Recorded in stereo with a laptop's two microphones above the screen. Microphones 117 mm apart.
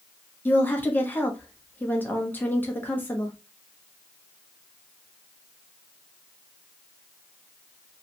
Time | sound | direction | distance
0.5 | a woman speaking | 15° left (ahead or behind) | 0.7 m